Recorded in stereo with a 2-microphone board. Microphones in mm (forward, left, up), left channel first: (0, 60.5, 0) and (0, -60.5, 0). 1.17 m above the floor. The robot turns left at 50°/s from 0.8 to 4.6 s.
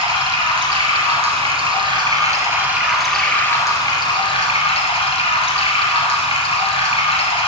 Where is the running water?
70° right, 1.8 m; by 7.5 s 100° left, 1.8 m.